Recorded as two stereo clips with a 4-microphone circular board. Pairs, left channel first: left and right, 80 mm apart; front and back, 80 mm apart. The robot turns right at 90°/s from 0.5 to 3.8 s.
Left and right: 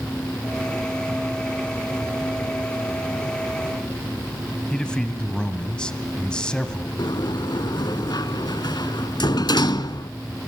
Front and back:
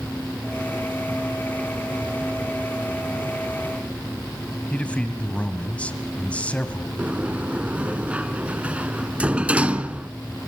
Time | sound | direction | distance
4.7 | a man speaking | 30° left | 1.2 m
7.0 | a sliding door | 110° left | 0.6 m